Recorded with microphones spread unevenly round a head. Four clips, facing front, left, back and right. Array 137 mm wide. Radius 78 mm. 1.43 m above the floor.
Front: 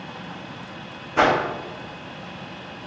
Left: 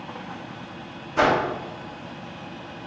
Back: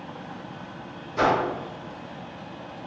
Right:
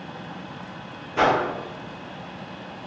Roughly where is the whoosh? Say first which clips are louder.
Even, front 3 dB; ahead.